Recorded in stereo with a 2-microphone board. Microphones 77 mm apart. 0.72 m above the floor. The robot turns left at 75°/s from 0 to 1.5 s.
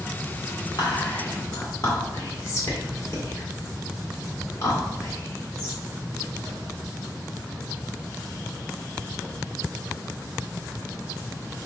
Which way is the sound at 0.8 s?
70° left (ahead or behind).